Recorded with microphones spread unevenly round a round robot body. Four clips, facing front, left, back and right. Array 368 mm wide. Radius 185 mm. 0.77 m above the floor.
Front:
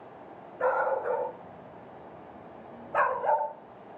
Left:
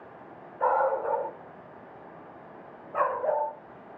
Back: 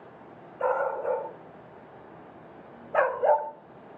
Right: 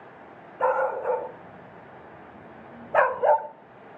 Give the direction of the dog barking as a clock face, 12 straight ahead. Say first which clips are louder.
Right 1 dB, even; 2 o'clock.